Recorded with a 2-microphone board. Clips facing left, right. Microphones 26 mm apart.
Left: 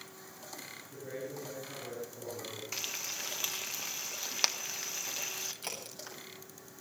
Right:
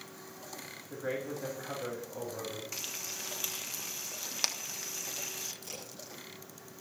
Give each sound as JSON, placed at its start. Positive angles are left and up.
{"t": 0.9, "sound": "a man speaking", "side_deg": -75, "distance_m": 7.0}
{"t": 2.7, "sound": "frying", "side_deg": 15, "distance_m": 1.3}
{"t": 5.6, "sound": "a crack", "side_deg": 65, "distance_m": 9.0}